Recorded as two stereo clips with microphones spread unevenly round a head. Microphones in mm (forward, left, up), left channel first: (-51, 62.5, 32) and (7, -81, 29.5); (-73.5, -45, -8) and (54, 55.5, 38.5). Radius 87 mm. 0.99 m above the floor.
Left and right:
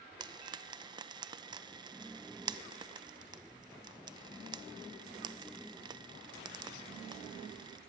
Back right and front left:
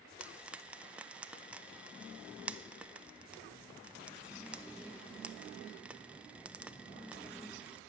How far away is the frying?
About 0.5 m.